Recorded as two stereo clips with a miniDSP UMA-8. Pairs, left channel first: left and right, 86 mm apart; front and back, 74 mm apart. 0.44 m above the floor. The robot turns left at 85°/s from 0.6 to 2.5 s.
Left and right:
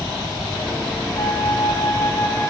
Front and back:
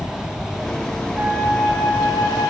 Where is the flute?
120° left, 1.5 m; by 2.5 s 5° left, 1.5 m.